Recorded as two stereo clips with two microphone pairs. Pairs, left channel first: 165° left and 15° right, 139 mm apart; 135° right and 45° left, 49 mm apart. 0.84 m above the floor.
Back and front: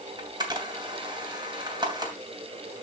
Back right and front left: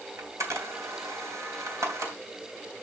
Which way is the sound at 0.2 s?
40° left.